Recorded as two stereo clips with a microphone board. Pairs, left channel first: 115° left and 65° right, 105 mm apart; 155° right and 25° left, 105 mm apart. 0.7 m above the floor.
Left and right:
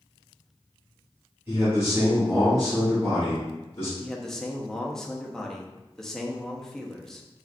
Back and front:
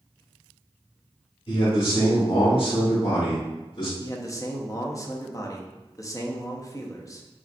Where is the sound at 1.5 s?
145° right, 2.0 m; by 3.9 s straight behind, 2 m.